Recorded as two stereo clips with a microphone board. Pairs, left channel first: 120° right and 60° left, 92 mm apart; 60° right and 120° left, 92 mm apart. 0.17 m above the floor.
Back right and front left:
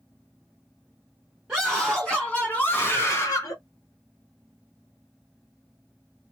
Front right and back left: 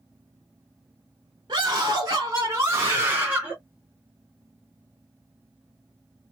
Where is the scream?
140° left, 2 m; by 3.6 s 165° right, 2.5 m.